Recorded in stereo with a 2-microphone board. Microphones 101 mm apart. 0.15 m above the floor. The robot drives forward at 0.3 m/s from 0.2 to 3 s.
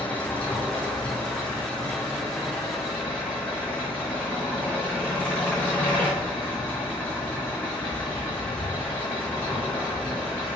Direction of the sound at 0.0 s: 15° left (ahead or behind).